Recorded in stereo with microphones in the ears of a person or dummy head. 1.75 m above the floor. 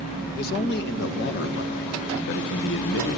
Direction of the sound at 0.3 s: 60° left (ahead or behind).